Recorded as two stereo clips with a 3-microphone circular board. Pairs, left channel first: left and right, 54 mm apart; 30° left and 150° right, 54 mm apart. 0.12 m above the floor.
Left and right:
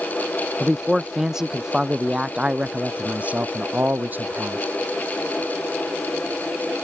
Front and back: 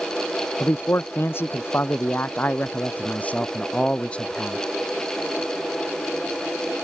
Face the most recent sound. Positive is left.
turn(degrees=-40)